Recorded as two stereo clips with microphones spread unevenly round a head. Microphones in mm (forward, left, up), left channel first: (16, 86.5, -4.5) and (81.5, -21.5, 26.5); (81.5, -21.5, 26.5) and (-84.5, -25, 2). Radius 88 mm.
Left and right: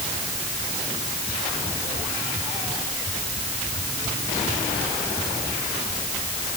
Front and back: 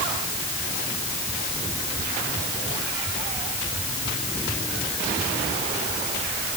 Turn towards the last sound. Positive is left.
No sound to turn to.